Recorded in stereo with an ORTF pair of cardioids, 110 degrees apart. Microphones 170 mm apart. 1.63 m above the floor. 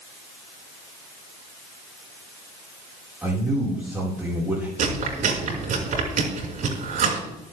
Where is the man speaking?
10° right, 5 m.